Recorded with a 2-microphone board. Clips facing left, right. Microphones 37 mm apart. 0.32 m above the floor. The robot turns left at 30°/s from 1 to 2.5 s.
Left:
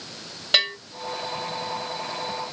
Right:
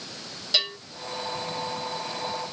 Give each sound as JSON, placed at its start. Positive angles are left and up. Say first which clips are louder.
{"t": 0.5, "sound": "a bell", "louder": "left 5 dB", "side_deg": 65, "distance_m": 0.9}